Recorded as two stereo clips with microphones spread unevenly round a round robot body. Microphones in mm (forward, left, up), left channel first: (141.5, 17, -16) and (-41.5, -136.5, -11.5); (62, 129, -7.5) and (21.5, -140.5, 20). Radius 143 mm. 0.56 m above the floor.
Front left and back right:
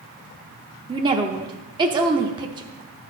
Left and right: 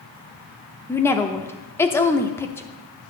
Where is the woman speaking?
155° left, 0.7 m.